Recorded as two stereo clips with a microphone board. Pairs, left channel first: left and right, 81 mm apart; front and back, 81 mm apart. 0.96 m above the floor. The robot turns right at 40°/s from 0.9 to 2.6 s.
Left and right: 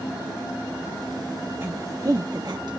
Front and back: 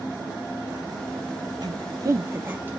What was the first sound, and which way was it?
A woman speaking, 150° right.